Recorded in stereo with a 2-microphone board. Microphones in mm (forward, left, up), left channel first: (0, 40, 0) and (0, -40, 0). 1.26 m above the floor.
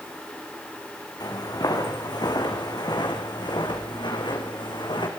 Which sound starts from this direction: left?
Footsteps, at 1.2 s.